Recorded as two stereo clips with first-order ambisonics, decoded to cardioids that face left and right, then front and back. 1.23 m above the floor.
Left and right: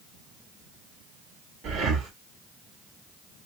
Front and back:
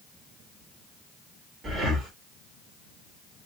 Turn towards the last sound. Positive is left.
turn(degrees=-130)